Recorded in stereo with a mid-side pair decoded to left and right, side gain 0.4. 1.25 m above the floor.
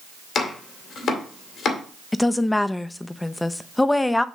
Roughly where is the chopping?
Left.